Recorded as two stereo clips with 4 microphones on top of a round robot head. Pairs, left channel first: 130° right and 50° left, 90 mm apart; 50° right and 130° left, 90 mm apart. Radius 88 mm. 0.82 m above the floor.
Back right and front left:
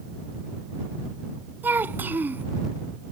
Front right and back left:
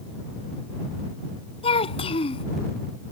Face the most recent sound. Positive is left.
turn(degrees=-25)